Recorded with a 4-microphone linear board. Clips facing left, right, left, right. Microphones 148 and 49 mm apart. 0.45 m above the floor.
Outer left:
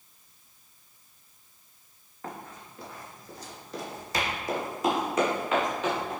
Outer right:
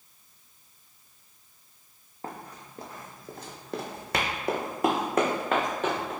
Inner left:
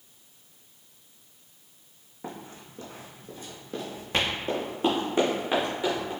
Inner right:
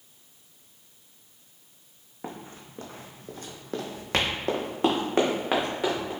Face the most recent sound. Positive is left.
turn(degrees=-45)  # may be behind; listen again after turning